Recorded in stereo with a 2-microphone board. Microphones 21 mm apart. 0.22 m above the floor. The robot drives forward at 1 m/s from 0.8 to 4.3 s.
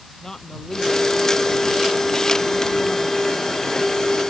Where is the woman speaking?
25° left (ahead or behind); by 4.2 s 15° left (ahead or behind).